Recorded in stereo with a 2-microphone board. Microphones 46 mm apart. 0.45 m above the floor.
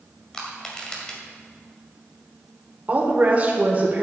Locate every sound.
0.3 s crushing: 15° left (ahead or behind), 2 m
2.9 s a woman speaking: 35° right (ahead or behind), 1.8 m